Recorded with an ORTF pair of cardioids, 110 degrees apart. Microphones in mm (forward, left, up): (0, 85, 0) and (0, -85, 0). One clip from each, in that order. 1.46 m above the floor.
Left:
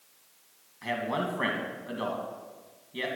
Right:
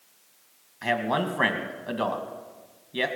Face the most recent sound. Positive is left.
turn(degrees=-40)